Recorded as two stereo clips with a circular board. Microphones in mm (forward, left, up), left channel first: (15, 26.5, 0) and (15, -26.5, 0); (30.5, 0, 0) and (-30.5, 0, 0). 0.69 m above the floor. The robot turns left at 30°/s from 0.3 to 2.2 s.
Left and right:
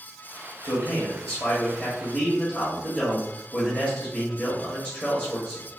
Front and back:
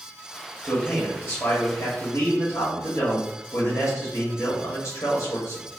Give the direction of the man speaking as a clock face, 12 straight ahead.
9 o'clock.